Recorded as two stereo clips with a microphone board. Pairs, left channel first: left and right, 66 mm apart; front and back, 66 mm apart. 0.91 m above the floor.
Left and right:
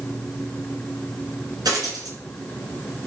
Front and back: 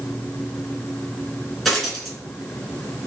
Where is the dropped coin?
95° right, 2 m.